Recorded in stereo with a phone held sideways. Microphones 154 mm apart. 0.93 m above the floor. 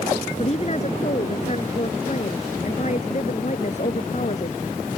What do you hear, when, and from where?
0.4 s a woman speaking: 45° left (ahead or behind); by 4.6 s 50° left (ahead or behind)